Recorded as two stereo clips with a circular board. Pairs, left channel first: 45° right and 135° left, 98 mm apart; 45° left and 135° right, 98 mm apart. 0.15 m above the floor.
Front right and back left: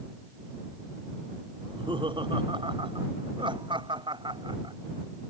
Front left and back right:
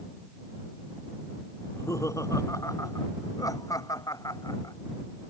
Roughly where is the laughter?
Left.